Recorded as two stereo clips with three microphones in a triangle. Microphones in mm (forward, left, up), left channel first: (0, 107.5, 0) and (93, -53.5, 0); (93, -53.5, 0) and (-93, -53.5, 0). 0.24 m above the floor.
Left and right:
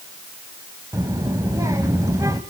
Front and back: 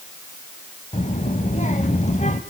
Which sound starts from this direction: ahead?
A child speaking, at 0.9 s.